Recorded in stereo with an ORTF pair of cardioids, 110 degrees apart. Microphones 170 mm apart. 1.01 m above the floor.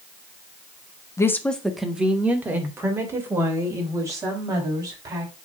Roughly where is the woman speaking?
Ahead.